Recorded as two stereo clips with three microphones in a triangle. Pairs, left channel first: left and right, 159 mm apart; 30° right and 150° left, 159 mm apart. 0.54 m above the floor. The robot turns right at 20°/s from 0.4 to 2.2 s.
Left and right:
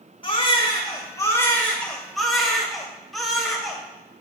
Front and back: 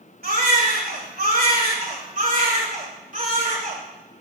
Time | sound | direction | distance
0.2 | a baby crying | 145° left | 2 m